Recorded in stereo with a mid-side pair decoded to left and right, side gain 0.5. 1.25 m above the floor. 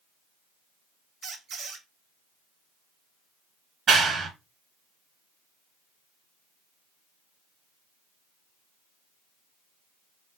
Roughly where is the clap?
Ahead right.